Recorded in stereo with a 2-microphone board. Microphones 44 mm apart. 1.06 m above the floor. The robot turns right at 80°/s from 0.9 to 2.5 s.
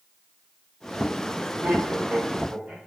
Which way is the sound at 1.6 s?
80° right.